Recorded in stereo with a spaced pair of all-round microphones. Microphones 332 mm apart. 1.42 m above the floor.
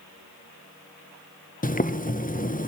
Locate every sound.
1.6 s boiling: 25° left (ahead or behind), 0.8 m